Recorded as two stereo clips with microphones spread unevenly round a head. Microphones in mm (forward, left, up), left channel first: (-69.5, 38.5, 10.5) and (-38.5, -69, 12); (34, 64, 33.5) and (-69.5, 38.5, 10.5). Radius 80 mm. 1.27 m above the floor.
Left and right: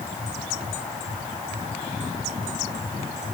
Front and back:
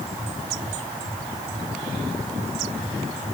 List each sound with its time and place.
Only background noise.